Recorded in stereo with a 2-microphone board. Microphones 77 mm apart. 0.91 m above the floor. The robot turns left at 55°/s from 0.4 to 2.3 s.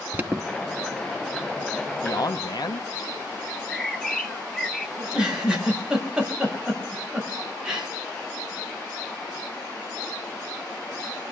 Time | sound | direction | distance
0.1 | an alarm | 25° right (ahead or behind) | 1.0 m
2.0 | a man speaking | 55° left (ahead or behind) | 1.1 m
3.5 | a bird | 10° left (ahead or behind) | 1.3 m
5.0 | a giggle | 10° right (ahead or behind) | 5 m